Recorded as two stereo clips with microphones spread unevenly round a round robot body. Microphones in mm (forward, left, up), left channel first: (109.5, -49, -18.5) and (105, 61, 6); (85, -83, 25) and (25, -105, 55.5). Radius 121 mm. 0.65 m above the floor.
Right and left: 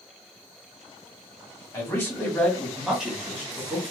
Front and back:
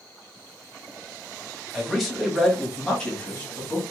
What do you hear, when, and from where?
1.7 s a man speaking: 50° right, 1.4 m; by 3.8 s 25° left, 1.4 m